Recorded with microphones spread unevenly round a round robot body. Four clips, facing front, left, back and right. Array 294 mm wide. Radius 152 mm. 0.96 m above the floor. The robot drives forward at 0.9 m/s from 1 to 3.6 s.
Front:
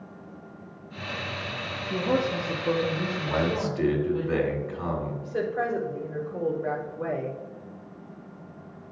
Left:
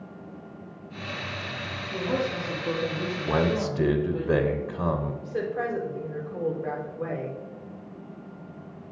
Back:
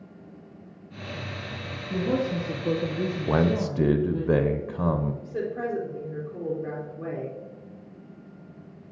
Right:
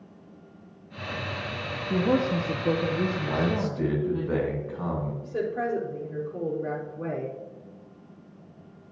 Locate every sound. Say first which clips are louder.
1.9 s a woman speaking: right 4 dB, even; 90° right, 1.0 m; by 4.3 s 150° right, 1.8 m
3.3 s a man speaking: left 2 dB, back 3 dB; 140° left, 0.7 m; by 5.1 s 150° left, 0.9 m
5.2 s a woman speaking: right 2 dB, front 2 dB; 120° right, 3.5 m